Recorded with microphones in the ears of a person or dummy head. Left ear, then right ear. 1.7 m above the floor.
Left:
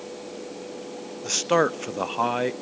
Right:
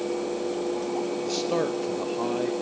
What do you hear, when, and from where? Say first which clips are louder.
1.2 s a man speaking: left 8 dB; 55° left (ahead or behind), 0.6 m